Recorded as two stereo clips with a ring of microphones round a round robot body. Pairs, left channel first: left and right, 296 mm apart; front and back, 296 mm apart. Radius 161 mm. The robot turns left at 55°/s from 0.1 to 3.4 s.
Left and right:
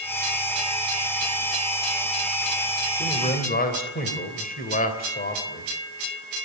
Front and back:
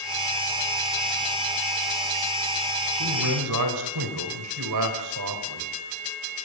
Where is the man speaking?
175° left, 3 m; by 5.7 s 150° left, 3 m.